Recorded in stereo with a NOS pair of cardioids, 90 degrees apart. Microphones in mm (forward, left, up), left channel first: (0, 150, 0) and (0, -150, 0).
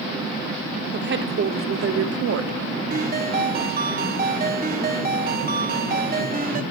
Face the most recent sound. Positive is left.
turn(degrees=-30)